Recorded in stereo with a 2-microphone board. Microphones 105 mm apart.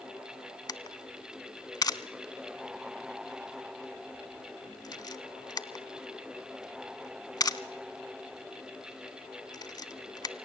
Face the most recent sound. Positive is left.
turn(degrees=40)  # may be behind; listen again after turning